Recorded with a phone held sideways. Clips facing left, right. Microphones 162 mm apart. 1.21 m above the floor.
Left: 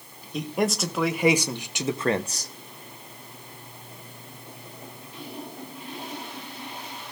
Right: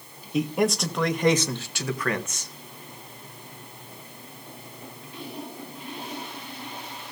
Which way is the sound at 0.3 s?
5° right (ahead or behind).